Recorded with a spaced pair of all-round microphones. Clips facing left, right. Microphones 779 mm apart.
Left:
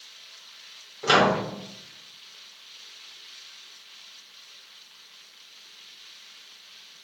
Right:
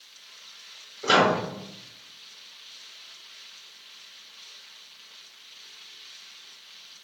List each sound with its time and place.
1.0 s a microwave: 35° left (ahead or behind), 0.6 m